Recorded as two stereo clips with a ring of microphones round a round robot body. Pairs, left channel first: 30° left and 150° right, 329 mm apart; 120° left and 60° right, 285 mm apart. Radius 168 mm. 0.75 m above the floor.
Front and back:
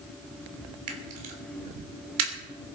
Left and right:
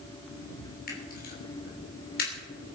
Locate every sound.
0.9 s a camera shutter: straight behind, 3 m